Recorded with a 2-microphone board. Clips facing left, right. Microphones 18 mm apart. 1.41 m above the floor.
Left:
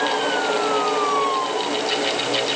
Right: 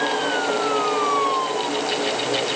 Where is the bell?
I don't hear a bell.